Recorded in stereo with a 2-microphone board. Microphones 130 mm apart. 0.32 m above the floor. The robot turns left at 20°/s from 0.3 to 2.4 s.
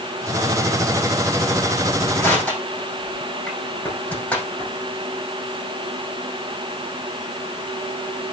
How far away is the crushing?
About 5.5 m.